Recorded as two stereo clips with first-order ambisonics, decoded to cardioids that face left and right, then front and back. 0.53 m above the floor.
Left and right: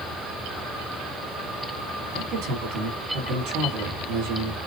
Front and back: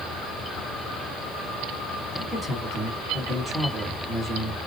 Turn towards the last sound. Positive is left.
turn(degrees=-100)